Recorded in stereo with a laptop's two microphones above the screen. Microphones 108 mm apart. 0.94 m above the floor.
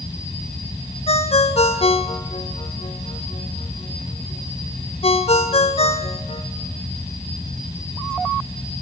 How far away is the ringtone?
About 1.6 m.